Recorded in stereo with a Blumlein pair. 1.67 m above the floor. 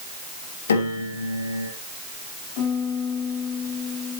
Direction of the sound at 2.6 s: 45° left.